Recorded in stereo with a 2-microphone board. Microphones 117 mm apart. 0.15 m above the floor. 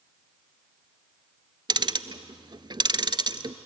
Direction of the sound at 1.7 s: 40° right (ahead or behind).